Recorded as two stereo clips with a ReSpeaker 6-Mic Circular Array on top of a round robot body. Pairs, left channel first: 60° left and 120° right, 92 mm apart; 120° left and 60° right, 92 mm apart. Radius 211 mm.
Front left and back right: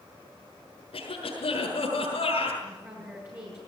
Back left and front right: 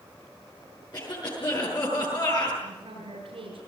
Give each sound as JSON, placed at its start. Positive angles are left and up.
{"t": 0.9, "sound": "a cough", "azimuth_deg": 75, "distance_m": 7.5}
{"t": 2.6, "sound": "a woman speaking", "azimuth_deg": -55, "distance_m": 6.0}